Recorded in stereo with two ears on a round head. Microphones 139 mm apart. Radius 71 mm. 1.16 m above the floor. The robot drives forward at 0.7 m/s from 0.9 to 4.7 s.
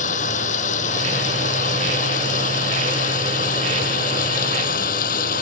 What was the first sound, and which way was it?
Running water, 50° left (ahead or behind).